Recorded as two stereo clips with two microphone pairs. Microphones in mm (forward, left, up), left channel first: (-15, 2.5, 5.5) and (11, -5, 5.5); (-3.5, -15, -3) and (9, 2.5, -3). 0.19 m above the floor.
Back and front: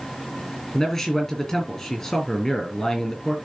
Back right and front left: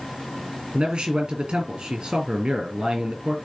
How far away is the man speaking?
About 4 m.